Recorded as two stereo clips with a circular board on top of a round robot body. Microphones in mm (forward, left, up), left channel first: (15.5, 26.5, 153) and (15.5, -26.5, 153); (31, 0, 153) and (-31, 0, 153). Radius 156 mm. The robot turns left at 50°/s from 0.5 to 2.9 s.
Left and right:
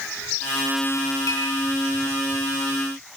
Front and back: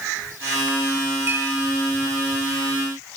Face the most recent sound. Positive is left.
turn(degrees=45)